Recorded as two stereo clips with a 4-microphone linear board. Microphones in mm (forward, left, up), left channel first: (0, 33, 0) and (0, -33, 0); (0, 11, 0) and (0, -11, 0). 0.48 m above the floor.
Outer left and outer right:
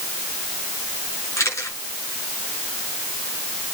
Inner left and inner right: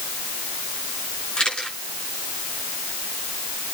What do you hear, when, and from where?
1.4 s a camera shutter: 45° left (ahead or behind), 6 m